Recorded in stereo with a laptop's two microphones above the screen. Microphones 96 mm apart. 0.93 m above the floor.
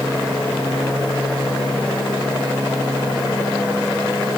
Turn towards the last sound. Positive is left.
No sound to turn to.